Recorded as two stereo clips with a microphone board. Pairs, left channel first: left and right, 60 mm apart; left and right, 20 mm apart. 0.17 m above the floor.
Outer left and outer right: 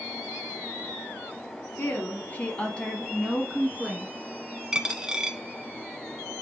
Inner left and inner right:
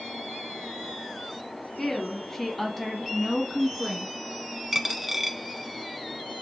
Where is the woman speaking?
35° left (ahead or behind), 1.3 m; by 4.1 s 10° right (ahead or behind), 1.7 m.